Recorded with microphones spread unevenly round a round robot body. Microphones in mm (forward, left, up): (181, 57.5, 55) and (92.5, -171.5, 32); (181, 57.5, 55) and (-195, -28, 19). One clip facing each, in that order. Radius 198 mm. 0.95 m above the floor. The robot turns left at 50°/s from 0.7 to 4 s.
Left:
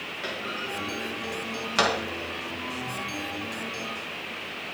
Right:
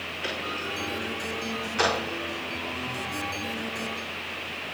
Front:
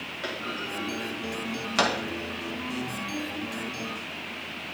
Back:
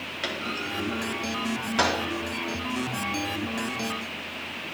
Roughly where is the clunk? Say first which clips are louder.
Right 1 dB, back 2 dB; behind left.